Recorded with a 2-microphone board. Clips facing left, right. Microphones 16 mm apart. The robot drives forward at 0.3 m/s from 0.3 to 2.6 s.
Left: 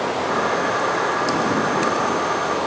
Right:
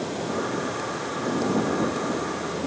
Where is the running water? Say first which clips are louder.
Left 7 dB; 70° left (ahead or behind).